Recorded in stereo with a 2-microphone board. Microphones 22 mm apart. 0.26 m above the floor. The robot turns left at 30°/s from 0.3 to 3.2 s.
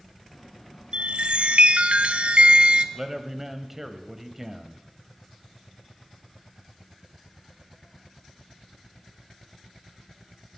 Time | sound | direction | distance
0.9 | a chime | 65° right | 0.6 m
3.0 | a man speaking | 15° right (ahead or behind) | 1.0 m